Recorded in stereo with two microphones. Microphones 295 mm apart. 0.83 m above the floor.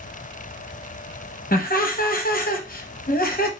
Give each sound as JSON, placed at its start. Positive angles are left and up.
{"t": 1.5, "sound": "laughter", "side_deg": 30, "distance_m": 0.6}